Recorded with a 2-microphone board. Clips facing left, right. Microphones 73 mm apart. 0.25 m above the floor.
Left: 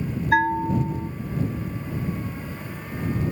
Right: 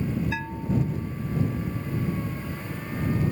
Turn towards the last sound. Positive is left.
turn(degrees=60)  # may be behind; listen again after turning